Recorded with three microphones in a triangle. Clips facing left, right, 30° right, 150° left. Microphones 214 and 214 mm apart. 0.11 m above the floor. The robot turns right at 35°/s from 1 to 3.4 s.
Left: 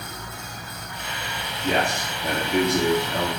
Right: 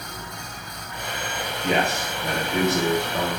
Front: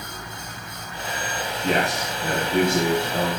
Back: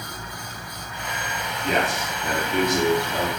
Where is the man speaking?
15° right, 2 m; by 3.3 s 40° left, 2 m.